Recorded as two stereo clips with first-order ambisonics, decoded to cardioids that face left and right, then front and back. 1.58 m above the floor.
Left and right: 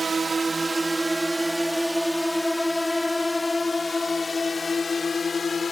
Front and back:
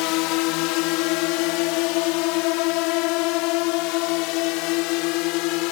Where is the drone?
15° right; by 5.7 s 20° left.